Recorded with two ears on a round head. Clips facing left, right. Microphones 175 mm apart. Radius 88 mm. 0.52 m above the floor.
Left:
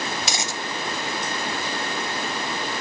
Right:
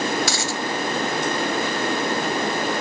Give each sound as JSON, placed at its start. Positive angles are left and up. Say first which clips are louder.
{"t": 0.2, "sound": "a dropped coin", "louder": "right 5 dB", "side_deg": 20}